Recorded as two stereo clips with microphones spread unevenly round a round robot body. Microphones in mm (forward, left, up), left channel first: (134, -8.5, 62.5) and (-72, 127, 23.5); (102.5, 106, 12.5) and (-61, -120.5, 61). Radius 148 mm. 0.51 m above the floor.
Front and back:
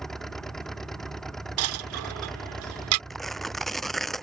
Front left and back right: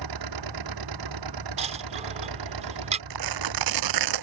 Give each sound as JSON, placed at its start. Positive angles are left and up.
{"t": 0.0, "sound": "an engine running", "azimuth_deg": -120}
{"t": 1.6, "sound": "a dropped coin", "azimuth_deg": 160}
{"t": 3.1, "sound": "tearing paper", "azimuth_deg": -120}